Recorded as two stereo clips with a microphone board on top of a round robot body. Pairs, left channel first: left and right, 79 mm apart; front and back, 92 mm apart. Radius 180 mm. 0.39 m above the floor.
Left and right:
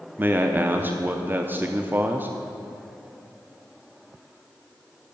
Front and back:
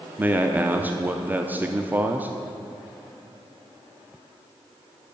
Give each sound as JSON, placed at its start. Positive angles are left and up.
{"t": 0.2, "sound": "a man speaking", "azimuth_deg": -130, "distance_m": 0.9}